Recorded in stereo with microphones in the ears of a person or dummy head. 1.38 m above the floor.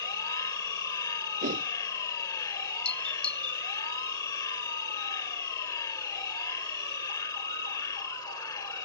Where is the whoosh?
45° right (ahead or behind).